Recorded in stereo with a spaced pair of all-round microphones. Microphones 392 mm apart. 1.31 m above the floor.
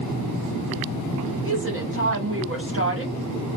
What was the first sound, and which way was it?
A woman speaking, 35° right (ahead or behind).